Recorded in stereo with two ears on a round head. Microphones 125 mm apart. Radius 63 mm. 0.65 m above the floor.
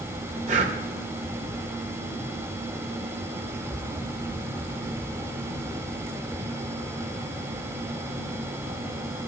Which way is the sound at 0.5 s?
60° right (ahead or behind).